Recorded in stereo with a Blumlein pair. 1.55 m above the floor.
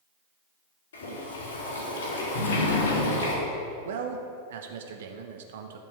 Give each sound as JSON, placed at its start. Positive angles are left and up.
{"t": 0.9, "sound": "boiling", "azimuth_deg": 65, "distance_m": 4.0}
{"t": 2.4, "sound": "a sliding door", "azimuth_deg": 60, "distance_m": 1.5}
{"t": 3.9, "sound": "a man speaking", "azimuth_deg": -55, "distance_m": 1.3}